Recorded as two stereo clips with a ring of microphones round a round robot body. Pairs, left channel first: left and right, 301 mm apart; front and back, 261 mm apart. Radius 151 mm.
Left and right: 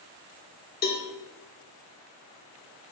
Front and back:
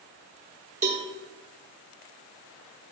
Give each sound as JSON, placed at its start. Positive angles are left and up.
{"t": 0.8, "sound": "a cowbell", "azimuth_deg": 130, "distance_m": 1.6}